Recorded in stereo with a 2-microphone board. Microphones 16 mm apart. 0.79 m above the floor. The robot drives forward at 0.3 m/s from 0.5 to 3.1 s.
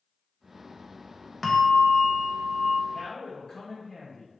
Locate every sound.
1.4 s a bell: 15° left (ahead or behind), 0.8 m; by 2.8 s 10° left (ahead or behind), 1.1 m
2.9 s a man speaking: 35° left (ahead or behind), 2 m